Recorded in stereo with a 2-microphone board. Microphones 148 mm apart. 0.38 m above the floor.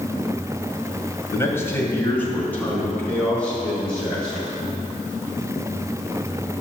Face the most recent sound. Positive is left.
turn(degrees=5)  # may be behind; listen again after turning